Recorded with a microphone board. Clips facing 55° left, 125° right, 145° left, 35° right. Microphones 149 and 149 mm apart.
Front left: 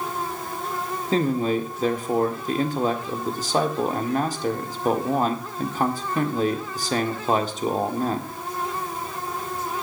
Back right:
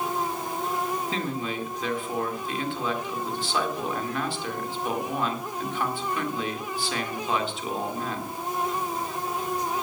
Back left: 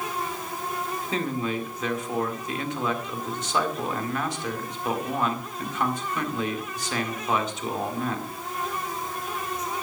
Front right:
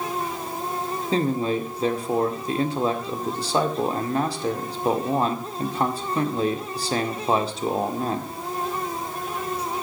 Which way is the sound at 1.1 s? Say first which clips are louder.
Front left 8 dB, front right 6 dB; 15° left.